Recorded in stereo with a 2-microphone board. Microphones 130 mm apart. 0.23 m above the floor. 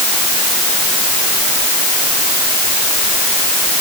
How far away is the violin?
I don't hear a violin.